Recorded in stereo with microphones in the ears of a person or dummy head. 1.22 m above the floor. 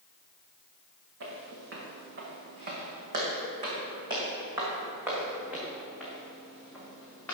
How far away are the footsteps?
About 3.5 m.